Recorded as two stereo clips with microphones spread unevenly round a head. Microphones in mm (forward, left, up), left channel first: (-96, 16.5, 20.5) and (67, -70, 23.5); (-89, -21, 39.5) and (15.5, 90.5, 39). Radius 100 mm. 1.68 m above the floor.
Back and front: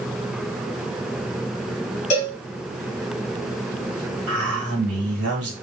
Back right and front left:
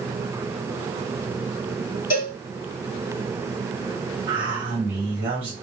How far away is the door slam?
No door slam in this recording.